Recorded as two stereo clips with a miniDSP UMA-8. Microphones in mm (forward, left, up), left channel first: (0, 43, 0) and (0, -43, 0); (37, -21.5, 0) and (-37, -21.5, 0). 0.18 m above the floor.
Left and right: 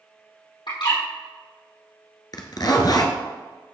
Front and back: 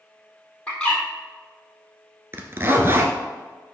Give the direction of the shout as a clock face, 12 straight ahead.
I don't hear a shout.